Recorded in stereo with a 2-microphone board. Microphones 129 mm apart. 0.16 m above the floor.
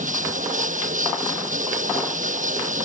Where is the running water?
80° right.